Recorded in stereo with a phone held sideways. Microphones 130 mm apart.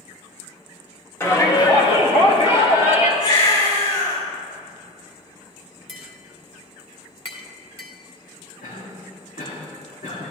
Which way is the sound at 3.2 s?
45° left (ahead or behind).